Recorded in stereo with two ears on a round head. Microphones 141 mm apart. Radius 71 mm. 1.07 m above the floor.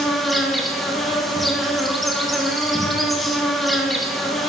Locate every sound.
0.0 s an insect: centre (ahead or behind), 1.0 m